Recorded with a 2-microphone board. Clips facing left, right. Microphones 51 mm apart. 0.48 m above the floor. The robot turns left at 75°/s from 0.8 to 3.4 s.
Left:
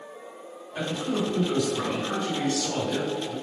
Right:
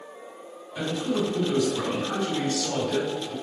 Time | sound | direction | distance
0.8 | a man speaking | 45° left | 1.8 m